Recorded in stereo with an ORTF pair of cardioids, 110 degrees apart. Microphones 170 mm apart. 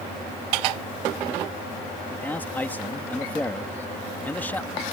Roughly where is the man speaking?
Ahead.